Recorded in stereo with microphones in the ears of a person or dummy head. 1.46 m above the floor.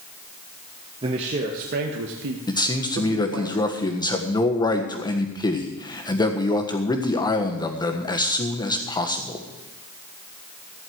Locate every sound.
1.0 s a man speaking: 30° right (ahead or behind), 1.5 m; by 3.5 s 80° right, 2 m
2.5 s a man speaking: 20° left (ahead or behind), 1.4 m